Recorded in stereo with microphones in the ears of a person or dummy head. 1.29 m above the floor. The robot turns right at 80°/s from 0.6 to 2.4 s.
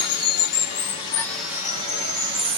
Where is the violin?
No violin in this recording.